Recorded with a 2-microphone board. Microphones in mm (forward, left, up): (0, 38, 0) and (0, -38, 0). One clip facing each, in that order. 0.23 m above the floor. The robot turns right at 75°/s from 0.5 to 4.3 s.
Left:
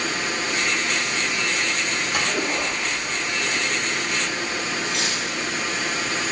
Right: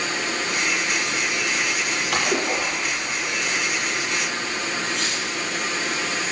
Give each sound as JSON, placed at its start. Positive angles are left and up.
{"t": 2.1, "sound": "a splash", "azimuth_deg": -95, "distance_m": 7.5}
{"t": 4.8, "sound": "cutlery clinking", "side_deg": 80, "distance_m": 6.0}